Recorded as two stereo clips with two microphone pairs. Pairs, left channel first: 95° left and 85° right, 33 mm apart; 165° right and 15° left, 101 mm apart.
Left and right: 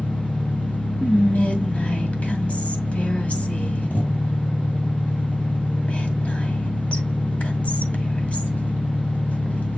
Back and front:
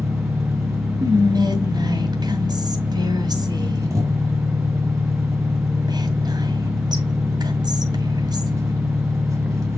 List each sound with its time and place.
0.0 s an engine running: 70° left, 2.5 m
1.0 s whispering: 55° left, 2 m